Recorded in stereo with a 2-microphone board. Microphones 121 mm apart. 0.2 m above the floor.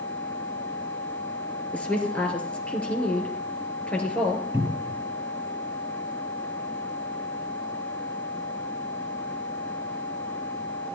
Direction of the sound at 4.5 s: 20° right (ahead or behind).